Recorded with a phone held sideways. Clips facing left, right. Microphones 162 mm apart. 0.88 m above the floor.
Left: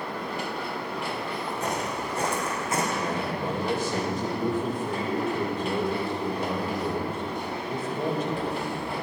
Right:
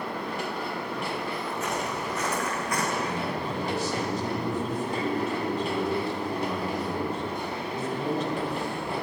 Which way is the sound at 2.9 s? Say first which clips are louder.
Left 1 dB; 50° left (ahead or behind).